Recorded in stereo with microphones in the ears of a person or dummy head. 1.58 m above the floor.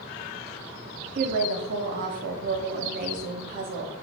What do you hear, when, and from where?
1.1 s a woman speaking: 55° right (ahead or behind), 0.6 m